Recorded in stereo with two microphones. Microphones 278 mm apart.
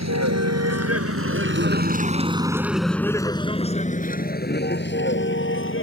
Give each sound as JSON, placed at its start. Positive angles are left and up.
{"t": 0.0, "sound": "a vehicle", "side_deg": -75}